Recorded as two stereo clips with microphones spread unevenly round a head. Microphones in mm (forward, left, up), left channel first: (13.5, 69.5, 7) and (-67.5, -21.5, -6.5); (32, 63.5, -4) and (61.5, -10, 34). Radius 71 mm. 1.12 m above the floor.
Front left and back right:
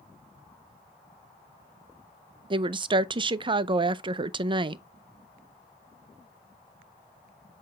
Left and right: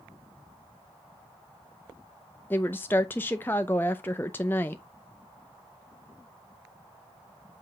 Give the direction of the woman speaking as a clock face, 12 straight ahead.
6 o'clock.